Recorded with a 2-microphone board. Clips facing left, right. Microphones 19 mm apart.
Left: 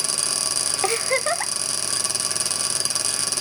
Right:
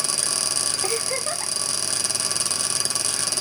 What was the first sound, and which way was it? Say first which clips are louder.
A giggle: left 4 dB; 50° left (ahead or behind).